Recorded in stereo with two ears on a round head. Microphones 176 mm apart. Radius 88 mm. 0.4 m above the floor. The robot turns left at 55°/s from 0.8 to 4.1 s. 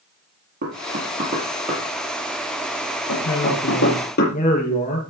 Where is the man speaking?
85° left, 7 m; by 5.0 s 35° left, 7 m.